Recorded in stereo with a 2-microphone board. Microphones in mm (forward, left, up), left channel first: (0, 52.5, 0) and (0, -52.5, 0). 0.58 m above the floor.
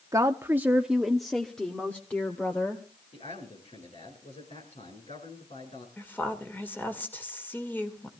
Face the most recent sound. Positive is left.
turn(degrees=20)  # may be behind; listen again after turning